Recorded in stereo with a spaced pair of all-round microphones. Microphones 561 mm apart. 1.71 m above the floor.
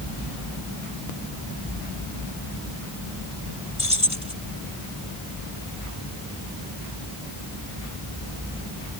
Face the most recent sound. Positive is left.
turn(degrees=65)  # may be behind; listen again after turning